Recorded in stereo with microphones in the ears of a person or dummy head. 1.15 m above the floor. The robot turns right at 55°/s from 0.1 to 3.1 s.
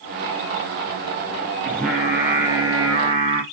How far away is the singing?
About 0.6 m.